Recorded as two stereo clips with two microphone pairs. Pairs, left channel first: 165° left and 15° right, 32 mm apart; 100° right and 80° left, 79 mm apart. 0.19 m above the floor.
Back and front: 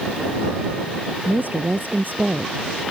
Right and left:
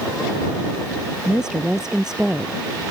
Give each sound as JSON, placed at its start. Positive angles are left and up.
{"t": 1.2, "sound": "a woman speaking", "azimuth_deg": 0}